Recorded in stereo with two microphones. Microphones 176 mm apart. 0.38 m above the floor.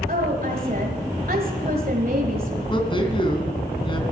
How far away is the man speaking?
About 3 m.